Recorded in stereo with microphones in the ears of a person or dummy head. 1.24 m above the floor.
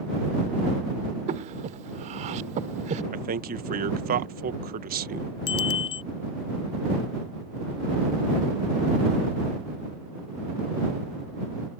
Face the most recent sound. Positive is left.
turn(degrees=30)  # may be behind; listen again after turning